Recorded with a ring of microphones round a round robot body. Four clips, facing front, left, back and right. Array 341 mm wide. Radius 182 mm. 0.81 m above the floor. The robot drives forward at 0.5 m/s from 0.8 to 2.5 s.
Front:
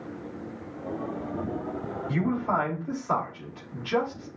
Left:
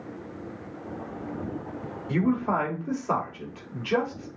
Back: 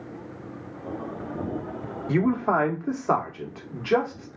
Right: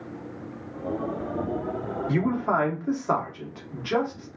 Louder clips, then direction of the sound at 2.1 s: Even, back 5 dB; 160° right.